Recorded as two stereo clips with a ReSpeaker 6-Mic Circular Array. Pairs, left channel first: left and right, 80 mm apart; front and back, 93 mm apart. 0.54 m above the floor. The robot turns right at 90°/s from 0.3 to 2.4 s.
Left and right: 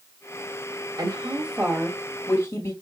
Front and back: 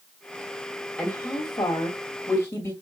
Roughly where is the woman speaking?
Right.